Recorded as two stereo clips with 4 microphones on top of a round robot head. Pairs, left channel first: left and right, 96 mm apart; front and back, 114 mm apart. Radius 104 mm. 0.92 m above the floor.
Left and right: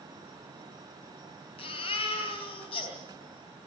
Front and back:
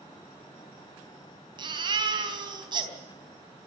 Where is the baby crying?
135° left, 3.5 m.